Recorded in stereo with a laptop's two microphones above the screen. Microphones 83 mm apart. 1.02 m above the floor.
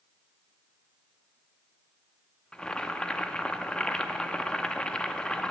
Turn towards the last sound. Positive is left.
turn(degrees=10)  # may be behind; listen again after turning